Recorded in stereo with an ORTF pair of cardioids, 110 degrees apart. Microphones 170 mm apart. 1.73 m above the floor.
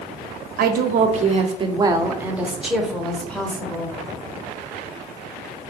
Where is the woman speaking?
65° right, 0.9 m; by 4.0 s 10° left, 1.8 m.